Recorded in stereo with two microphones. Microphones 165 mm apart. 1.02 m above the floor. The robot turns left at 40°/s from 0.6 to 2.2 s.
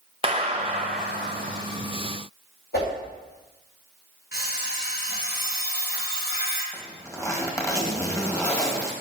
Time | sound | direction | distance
0.2 | a clap | 40° right | 0.8 m
2.7 | a whoosh | 85° left | 4.5 m
4.3 | an alarm clock | 85° left | 4 m
6.7 | a zipper | 20° left (ahead or behind) | 1.5 m